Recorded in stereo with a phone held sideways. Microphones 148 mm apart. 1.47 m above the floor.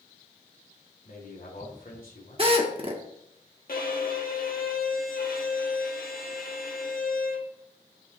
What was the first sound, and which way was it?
A man speaking, 75° left (ahead or behind).